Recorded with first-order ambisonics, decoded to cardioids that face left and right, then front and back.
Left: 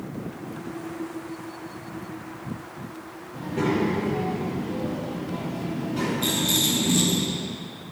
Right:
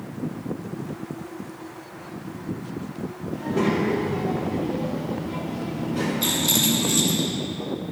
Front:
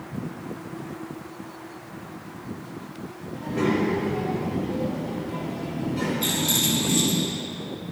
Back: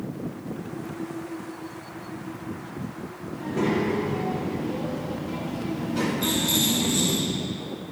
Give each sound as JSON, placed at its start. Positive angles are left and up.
{"t": 3.3, "sound": "a child speaking", "azimuth_deg": -115, "distance_m": 3.0}
{"t": 6.2, "sound": "a rattle", "azimuth_deg": -90, "distance_m": 3.0}